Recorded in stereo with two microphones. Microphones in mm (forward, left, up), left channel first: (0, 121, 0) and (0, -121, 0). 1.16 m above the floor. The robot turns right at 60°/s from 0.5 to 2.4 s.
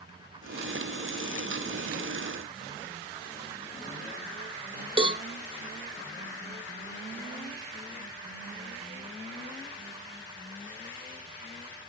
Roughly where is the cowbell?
Right.